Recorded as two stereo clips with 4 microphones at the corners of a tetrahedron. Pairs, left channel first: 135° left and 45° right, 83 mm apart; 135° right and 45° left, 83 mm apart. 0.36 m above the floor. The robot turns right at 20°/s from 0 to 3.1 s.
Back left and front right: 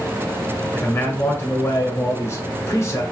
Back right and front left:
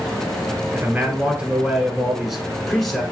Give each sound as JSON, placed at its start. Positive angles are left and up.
{"t": 0.7, "sound": "a man speaking", "azimuth_deg": 100, "distance_m": 1.4}